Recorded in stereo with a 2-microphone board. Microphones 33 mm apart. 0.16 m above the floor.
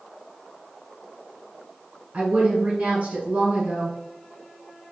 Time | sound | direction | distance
2.1 | a woman speaking | 40° right (ahead or behind) | 1.3 m